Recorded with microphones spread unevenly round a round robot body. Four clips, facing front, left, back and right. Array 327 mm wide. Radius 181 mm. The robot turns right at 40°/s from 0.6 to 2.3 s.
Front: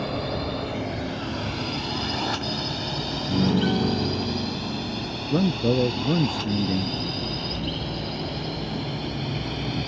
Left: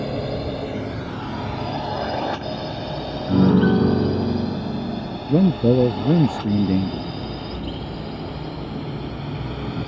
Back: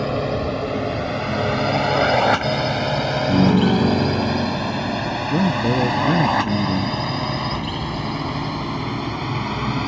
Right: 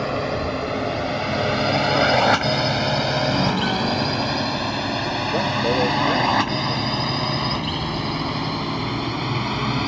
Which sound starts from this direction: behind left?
A piano, at 3.3 s.